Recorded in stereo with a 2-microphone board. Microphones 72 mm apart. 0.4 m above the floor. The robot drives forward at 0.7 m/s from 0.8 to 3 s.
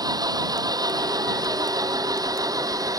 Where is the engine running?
60° right (ahead or behind); by 3.0 s 55° right (ahead or behind).